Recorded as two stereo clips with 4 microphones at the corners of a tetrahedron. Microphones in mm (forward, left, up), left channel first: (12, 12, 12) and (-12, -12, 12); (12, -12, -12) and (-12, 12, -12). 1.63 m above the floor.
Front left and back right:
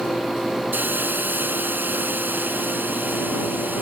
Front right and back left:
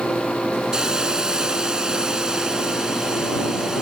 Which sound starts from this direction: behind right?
A hiss, at 0.7 s.